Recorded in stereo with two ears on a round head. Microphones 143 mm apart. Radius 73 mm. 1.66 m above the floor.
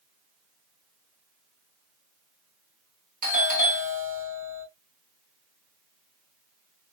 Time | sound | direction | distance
3.2 | a doorbell | 65° right (ahead or behind) | 1.6 m